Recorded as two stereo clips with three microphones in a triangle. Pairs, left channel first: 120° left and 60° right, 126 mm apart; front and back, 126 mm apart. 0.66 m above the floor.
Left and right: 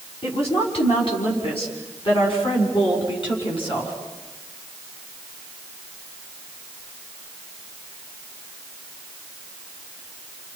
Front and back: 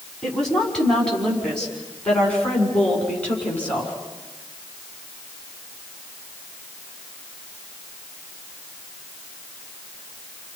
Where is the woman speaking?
85° left, 6 m; by 3.9 s 80° left, 8 m.